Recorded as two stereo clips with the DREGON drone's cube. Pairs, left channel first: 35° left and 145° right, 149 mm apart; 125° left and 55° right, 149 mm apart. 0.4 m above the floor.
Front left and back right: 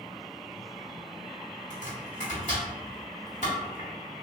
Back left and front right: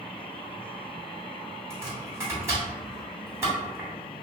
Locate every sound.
1.7 s chopping: 15° left, 1.4 m